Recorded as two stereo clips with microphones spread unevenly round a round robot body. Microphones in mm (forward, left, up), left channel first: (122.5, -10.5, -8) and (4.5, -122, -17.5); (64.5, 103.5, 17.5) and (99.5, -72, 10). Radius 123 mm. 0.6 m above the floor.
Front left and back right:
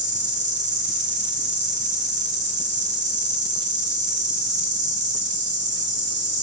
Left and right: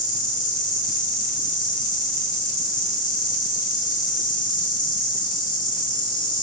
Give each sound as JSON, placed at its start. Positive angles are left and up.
{"t": 0.0, "sound": "an insect", "azimuth_deg": 175, "distance_m": 2.0}